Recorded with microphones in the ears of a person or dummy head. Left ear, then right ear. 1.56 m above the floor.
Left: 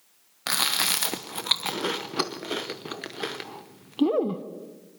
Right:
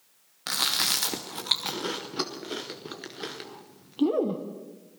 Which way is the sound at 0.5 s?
20° left (ahead or behind).